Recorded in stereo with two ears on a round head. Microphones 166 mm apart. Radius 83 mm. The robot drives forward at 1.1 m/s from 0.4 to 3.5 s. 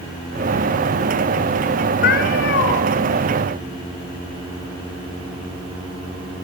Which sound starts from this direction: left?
A cat meowing, at 2.0 s.